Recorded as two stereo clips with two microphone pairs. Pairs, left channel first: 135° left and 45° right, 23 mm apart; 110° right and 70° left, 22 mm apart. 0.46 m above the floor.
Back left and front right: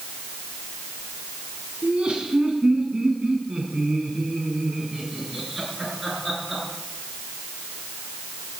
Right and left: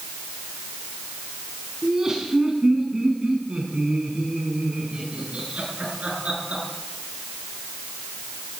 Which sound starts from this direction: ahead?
Laughter, at 1.8 s.